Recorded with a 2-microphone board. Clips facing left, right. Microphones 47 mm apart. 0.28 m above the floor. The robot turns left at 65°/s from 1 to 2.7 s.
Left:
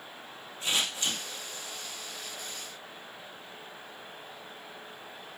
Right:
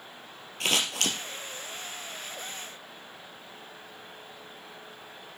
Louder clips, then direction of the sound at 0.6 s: Right 3 dB; 85° right.